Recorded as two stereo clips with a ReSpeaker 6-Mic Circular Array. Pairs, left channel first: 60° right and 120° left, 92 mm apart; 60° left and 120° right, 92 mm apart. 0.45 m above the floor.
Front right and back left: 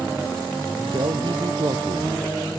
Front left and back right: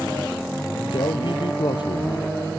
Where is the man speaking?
90° left; by 2.5 s 85° left.